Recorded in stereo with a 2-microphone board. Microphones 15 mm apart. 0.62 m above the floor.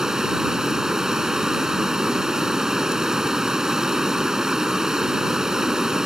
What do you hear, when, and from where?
0.0 s running water: 40° right (ahead or behind)